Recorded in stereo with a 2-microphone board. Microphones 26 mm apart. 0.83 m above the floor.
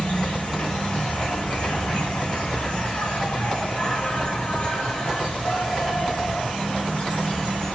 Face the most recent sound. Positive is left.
turn(degrees=55)  # may be behind; listen again after turning